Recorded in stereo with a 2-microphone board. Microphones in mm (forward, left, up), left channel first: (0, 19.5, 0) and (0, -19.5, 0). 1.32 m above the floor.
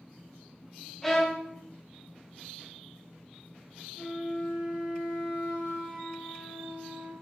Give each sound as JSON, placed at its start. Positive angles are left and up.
{"t": 1.0, "sound": "a violin", "side_deg": 5, "distance_m": 0.8}
{"t": 4.0, "sound": "a flute", "side_deg": -60, "distance_m": 1.3}